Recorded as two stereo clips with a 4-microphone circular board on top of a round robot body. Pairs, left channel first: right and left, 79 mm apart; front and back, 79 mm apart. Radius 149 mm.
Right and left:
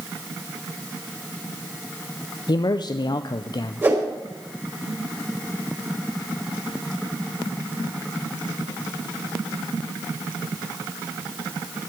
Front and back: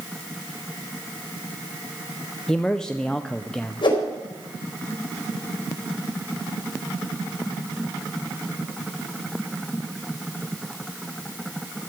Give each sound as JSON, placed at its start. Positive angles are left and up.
{"t": 2.5, "sound": "a man speaking", "azimuth_deg": -80, "distance_m": 0.7}
{"t": 3.8, "sound": "a whoosh", "azimuth_deg": 30, "distance_m": 3.5}